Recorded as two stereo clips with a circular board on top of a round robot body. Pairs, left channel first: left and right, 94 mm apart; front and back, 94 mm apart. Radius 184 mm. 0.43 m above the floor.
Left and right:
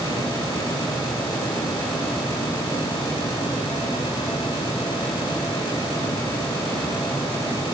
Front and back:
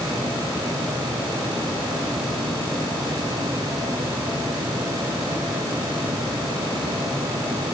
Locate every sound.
Only background noise.